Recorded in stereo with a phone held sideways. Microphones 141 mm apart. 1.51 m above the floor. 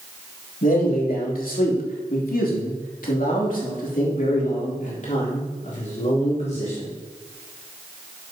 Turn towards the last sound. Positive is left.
turn(degrees=50)  # may be behind; listen again after turning